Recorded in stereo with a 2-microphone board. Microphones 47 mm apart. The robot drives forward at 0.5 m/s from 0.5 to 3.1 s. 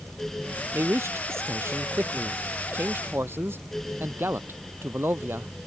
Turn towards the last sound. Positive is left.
turn(degrees=-55)  # may be behind; listen again after turning